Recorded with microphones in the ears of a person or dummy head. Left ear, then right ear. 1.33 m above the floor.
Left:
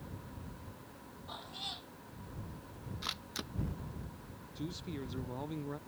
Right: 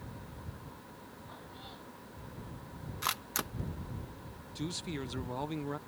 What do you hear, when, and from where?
1.3 s a cat meowing: 80° left
3.0 s a camera shutter: 35° right (ahead or behind)
4.5 s a man speaking: 40° right (ahead or behind)